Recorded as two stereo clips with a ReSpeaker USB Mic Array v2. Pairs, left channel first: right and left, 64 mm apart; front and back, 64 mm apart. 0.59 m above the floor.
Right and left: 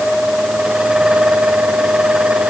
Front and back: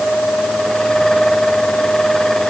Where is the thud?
I don't hear a thud.